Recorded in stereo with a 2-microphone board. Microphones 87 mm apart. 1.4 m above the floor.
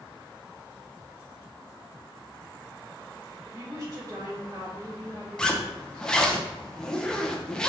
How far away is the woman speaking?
About 3.5 m.